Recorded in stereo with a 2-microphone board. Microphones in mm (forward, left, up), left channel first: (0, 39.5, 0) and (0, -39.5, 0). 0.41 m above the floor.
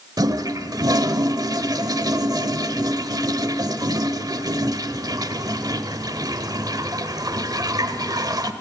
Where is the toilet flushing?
50° right (ahead or behind), 1.0 m.